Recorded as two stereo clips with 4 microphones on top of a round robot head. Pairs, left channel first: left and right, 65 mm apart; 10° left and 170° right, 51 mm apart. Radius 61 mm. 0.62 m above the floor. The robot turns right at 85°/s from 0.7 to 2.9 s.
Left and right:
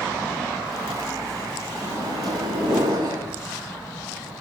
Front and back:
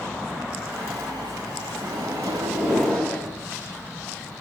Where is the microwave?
160° right, 6.5 m; by 3.2 s 70° right, 6.5 m.